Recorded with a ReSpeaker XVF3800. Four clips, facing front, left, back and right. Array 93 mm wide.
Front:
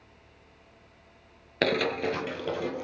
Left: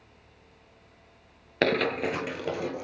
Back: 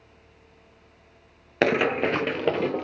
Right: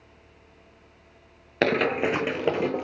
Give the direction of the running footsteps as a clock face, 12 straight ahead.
6 o'clock.